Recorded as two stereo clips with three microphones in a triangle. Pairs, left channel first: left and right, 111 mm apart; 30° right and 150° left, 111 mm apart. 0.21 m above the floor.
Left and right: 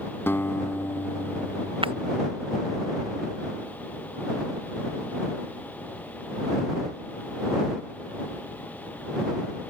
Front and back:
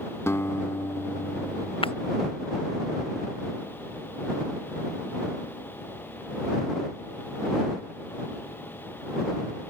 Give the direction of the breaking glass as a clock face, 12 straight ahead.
2 o'clock.